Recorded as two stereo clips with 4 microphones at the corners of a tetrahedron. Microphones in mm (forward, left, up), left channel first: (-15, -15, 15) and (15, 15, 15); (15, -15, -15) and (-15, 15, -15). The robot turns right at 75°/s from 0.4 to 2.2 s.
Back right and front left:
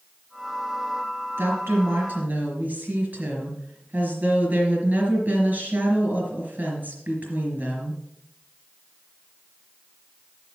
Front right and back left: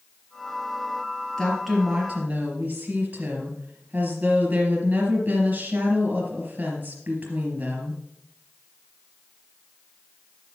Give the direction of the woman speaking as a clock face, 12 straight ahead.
11 o'clock.